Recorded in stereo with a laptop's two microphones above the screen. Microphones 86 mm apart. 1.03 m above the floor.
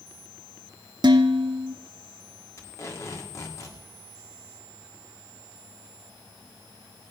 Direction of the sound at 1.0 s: 60° right (ahead or behind).